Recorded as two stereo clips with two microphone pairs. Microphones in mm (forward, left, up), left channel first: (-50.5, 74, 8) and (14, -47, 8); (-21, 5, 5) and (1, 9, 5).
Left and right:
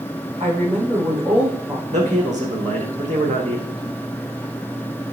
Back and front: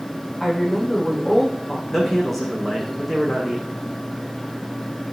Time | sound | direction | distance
0.4 | a woman speaking | 110° right | 5.5 m
1.9 | a man speaking | 90° right | 6 m